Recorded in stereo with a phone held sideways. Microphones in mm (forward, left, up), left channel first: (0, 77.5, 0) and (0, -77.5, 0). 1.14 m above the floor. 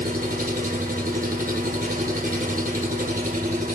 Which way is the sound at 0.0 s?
65° right (ahead or behind).